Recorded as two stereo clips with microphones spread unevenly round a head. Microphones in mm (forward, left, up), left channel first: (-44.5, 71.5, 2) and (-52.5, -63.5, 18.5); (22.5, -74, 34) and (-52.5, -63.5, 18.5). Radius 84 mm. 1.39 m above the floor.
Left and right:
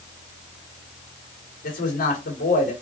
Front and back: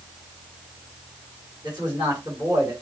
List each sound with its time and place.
1.6 s a man speaking: 90° left, 2.5 m